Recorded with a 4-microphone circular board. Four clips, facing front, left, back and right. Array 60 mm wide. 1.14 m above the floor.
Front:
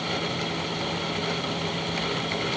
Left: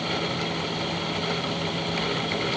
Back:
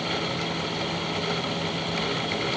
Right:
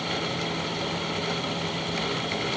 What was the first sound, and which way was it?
Only background noise.